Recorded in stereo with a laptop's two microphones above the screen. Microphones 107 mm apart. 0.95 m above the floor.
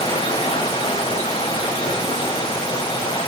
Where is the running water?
55° left (ahead or behind), 4.5 m.